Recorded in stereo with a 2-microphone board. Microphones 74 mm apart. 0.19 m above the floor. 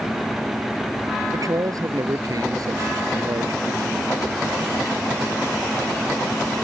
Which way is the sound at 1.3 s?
55° right (ahead or behind).